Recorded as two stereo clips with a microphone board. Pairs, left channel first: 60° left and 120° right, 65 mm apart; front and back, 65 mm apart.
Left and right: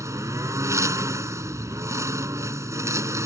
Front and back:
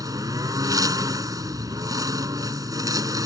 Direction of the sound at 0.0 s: 155° right.